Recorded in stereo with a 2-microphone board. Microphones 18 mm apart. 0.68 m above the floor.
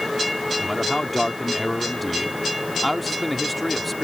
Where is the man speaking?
10° left (ahead or behind).